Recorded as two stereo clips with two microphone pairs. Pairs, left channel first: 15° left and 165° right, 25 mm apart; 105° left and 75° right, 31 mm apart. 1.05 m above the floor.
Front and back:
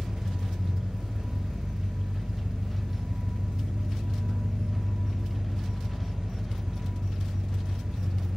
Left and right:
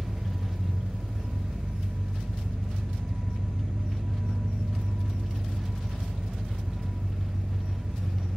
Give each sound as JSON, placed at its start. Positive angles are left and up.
{"t": 0.0, "sound": "an engine running", "azimuth_deg": -140, "distance_m": 1.2}